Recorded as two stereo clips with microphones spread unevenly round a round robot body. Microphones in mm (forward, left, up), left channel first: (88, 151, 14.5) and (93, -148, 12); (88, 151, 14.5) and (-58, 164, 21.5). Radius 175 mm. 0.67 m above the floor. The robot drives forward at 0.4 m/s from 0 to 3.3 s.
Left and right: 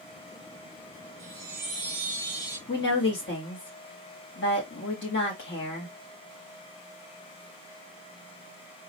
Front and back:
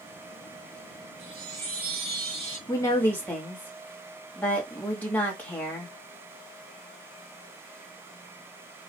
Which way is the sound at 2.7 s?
50° left.